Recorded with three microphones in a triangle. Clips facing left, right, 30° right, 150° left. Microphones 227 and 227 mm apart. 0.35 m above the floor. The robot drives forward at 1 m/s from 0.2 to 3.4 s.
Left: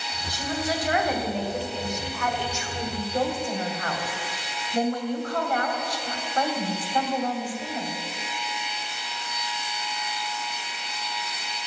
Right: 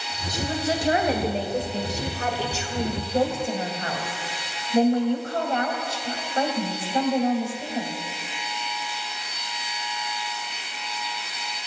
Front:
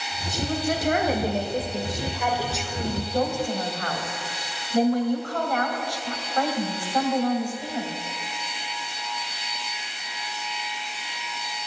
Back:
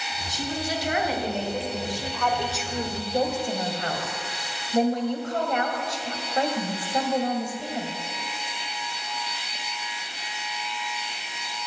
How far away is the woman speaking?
About 2.5 m.